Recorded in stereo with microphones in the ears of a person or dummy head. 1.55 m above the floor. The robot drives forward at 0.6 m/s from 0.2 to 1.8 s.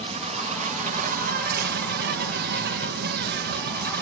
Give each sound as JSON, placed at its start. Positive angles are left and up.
{"t": 0.0, "sound": "an insect", "side_deg": -40, "distance_m": 2.0}